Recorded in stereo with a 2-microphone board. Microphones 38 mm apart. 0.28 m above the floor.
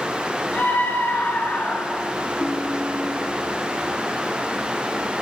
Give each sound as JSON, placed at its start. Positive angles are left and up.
{"t": 0.5, "sound": "a scream", "side_deg": 50, "distance_m": 3.5}
{"t": 2.4, "sound": "a ringtone", "side_deg": 10, "distance_m": 6.5}